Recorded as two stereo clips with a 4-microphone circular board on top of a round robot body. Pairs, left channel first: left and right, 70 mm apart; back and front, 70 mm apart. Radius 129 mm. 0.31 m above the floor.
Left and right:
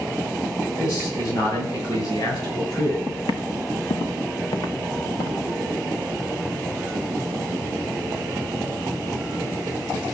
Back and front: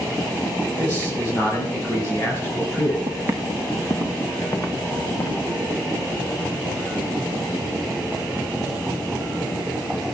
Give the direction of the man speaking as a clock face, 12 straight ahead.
8 o'clock.